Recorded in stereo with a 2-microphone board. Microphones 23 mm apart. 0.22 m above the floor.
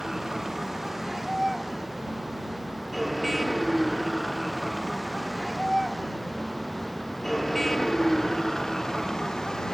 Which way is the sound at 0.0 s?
15° right (ahead or behind).